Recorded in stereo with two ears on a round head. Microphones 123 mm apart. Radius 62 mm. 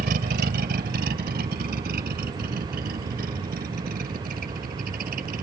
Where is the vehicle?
75° right (ahead or behind); by 5.4 s 70° right (ahead or behind).